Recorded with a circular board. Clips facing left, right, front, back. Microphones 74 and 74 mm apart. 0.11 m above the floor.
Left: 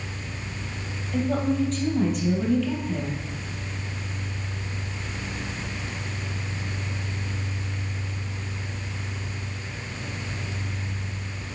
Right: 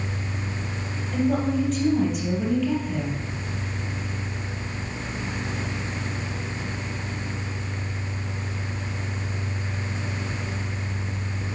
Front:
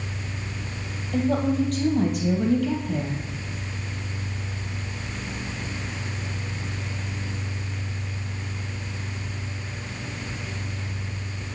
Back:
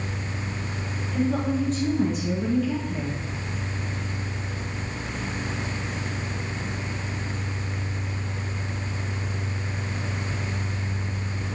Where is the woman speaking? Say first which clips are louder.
Right 1 dB, front 2 dB; 5° right, 2.5 m.